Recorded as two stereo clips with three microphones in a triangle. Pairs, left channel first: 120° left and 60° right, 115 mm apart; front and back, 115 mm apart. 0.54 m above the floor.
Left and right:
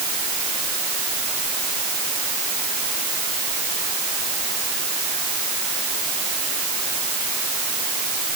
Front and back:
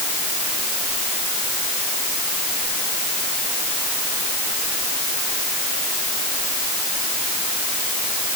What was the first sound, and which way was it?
Only background noise.